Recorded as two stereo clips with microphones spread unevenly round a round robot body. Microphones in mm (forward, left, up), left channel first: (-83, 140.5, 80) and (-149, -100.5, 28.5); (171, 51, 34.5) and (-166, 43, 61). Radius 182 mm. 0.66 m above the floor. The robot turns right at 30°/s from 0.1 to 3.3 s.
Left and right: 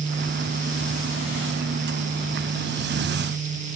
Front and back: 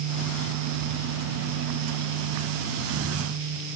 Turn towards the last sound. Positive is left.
No sound to turn to.